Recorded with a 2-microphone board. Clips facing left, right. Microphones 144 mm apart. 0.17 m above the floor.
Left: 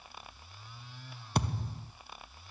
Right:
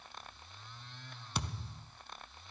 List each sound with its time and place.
1.4 s a thud: 50° left (ahead or behind), 0.6 m